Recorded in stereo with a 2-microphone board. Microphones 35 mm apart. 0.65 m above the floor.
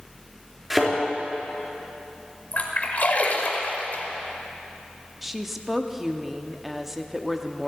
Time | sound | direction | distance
0.7 | a thud | 10° right (ahead or behind) | 4 m
2.5 | a splash | 50° left (ahead or behind) | 1.5 m
5.2 | a woman speaking | 10° right (ahead or behind) | 0.8 m